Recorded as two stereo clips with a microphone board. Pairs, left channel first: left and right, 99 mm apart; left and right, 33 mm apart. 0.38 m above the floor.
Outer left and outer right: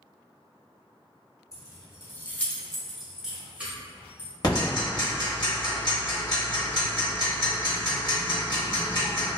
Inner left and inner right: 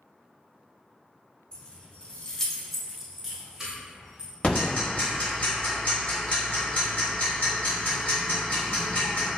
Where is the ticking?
45° left (ahead or behind), 1.0 m.